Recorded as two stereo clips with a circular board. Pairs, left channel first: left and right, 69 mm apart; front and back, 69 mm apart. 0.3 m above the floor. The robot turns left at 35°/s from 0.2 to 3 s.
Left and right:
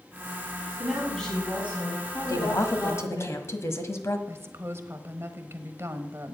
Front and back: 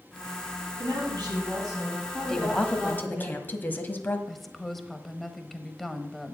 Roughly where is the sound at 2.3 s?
Left.